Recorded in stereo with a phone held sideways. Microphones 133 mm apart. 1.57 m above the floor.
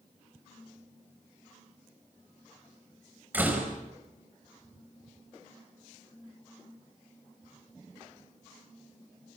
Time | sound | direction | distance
3.3 | a door slam | 10° right (ahead or behind) | 5 m